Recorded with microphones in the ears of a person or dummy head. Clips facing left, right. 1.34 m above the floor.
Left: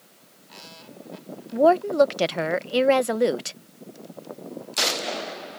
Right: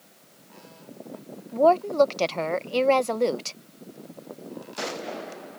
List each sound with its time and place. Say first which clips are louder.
1.5 s a woman speaking: left 1 dB; 15° left (ahead or behind)